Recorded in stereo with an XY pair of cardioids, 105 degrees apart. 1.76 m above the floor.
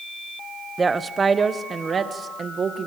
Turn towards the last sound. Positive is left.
turn(degrees=-45)